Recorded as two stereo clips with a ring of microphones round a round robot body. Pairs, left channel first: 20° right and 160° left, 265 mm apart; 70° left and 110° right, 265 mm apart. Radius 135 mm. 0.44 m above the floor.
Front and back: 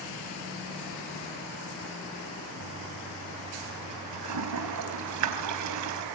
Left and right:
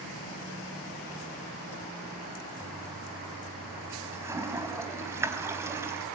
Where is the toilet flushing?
165° left, 4 m.